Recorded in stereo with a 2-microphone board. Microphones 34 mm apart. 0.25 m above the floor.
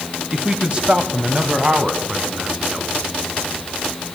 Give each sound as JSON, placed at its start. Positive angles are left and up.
{"t": 0.3, "sound": "a man speaking", "side_deg": -25, "distance_m": 1.1}